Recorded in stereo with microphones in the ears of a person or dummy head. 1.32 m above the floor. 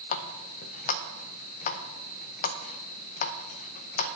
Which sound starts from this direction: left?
A running tap, at 0.1 s.